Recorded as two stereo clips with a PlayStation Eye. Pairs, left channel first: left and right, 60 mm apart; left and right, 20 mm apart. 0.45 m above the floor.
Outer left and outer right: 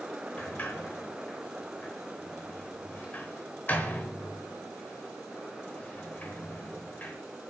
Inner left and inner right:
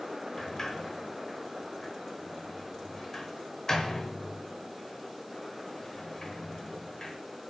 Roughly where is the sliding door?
Left.